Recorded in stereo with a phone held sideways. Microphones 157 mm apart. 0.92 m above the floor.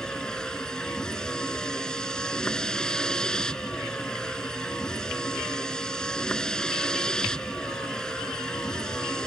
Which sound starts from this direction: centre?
A vehicle, at 0.0 s.